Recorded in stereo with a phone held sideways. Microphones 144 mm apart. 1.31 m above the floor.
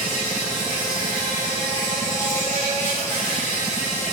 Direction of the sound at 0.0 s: 55° left (ahead or behind).